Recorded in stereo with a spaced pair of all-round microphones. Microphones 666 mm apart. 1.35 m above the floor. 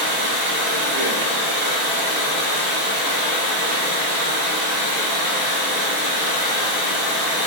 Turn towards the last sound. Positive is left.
turn(degrees=75)  # may be behind; listen again after turning